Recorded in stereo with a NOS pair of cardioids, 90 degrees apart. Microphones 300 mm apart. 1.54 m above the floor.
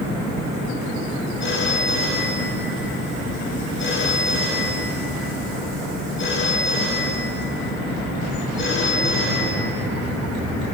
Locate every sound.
1.4 s a phone ringing: 40° left, 5 m